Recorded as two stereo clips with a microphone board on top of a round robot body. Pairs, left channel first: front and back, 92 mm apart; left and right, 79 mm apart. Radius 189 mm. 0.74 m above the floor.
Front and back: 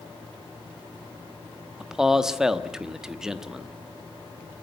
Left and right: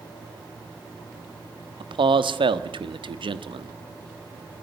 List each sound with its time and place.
1.8 s a man speaking: 95° right, 1.4 m